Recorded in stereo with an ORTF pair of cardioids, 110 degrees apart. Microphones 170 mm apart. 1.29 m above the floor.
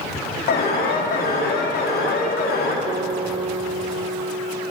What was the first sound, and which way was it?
An alarm, 65° left.